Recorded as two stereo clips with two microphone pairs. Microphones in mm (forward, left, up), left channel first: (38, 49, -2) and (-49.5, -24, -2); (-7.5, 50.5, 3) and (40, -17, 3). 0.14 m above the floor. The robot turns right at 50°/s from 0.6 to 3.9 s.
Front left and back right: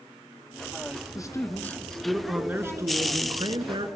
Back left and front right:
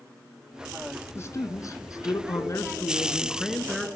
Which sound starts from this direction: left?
A man speaking, at 1.1 s.